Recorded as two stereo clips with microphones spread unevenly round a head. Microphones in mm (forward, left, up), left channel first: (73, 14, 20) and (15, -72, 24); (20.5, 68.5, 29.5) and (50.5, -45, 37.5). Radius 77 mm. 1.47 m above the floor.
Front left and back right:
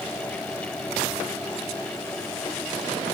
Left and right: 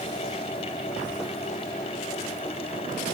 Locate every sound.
Only background noise.